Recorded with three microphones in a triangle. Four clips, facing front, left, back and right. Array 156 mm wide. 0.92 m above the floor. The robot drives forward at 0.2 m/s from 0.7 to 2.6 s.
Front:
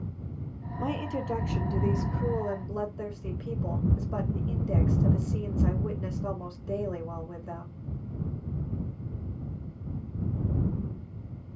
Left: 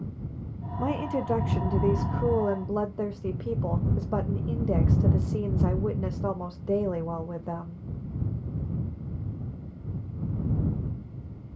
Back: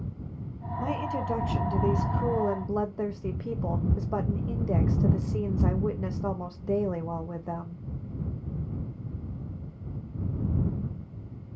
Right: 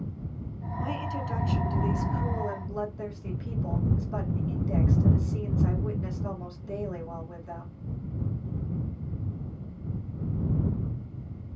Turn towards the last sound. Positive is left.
turn(degrees=120)